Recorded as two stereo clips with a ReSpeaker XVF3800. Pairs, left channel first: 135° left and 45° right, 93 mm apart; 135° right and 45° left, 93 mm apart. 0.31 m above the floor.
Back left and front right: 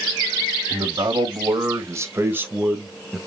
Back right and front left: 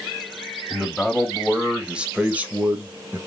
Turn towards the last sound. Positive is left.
turn(degrees=45)